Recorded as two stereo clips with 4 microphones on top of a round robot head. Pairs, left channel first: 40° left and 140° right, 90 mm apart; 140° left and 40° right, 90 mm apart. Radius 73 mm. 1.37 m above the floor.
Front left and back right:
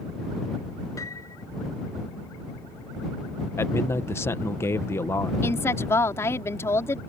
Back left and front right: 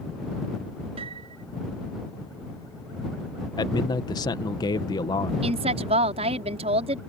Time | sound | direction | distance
1.0 | a piano | 20° right | ?
3.6 | a man speaking | 100° left | ?
5.4 | a woman speaking | 30° right | ?